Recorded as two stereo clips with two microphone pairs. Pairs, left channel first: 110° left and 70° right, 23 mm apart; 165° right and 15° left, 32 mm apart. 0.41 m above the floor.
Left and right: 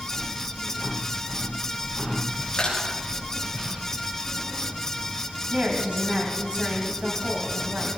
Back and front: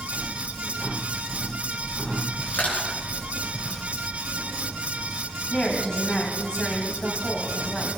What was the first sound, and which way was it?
Crushing, 165° left.